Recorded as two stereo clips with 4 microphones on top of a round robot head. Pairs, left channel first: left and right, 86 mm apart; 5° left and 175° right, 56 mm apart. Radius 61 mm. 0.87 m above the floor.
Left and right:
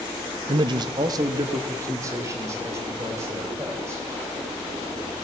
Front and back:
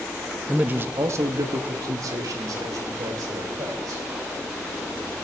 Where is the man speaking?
105° right, 0.6 m; by 4.0 s 155° right, 3.5 m.